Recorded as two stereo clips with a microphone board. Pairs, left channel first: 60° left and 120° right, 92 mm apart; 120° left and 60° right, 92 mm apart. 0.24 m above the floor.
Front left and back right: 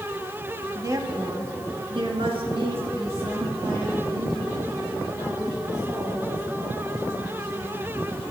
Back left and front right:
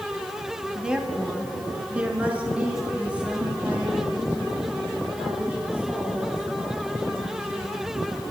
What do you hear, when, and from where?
0.8 s a woman speaking: 135° right, 1.1 m